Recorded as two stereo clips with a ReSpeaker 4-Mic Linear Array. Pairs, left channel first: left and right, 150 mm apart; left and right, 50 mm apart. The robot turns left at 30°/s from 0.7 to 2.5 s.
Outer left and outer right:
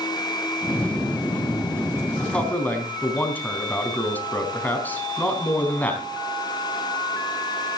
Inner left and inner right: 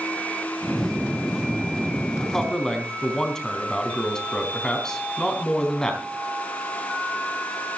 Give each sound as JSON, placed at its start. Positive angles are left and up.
{"t": 2.2, "sound": "a man speaking", "side_deg": 5, "distance_m": 3.5}